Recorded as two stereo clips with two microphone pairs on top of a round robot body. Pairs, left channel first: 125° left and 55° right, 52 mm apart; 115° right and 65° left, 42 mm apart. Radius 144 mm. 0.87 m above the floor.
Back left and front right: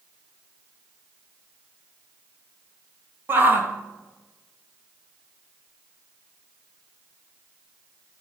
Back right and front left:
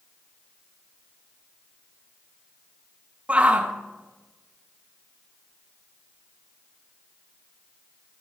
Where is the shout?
5° right, 1.8 m.